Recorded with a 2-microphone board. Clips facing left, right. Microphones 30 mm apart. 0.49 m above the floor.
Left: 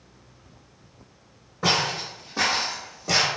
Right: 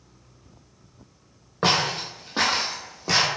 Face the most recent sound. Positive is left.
turn(degrees=-25)  # may be behind; listen again after turning